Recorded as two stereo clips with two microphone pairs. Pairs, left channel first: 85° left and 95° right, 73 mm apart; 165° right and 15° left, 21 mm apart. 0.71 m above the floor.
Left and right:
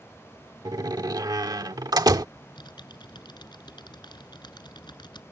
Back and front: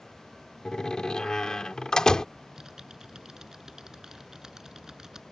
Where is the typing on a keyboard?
75° left.